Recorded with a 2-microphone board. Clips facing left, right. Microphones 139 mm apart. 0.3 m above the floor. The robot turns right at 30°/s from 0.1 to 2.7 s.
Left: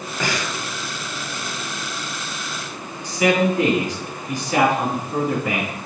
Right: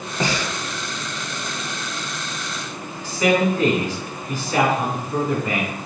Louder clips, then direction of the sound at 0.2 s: Right 2 dB; 20° right (ahead or behind).